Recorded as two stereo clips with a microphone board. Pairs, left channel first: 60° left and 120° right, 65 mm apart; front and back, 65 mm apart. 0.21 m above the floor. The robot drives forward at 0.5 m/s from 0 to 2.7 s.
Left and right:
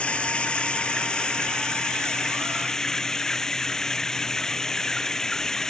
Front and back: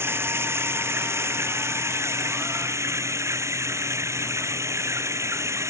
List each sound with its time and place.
0.0 s running water: 130° left; by 5.7 s 140° left